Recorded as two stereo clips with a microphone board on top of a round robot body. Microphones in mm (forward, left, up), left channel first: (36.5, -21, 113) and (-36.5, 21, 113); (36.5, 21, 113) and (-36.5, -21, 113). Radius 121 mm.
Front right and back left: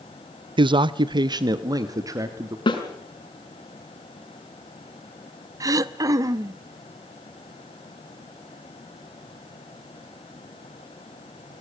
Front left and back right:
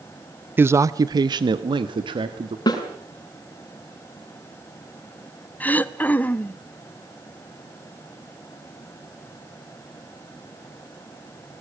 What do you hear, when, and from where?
0.6 s a man speaking: 145° left, 0.7 m; by 2.6 s 160° right, 1.7 m
2.7 s a snare drum: 10° right, 6.5 m
5.6 s throat clearing: 100° left, 0.7 m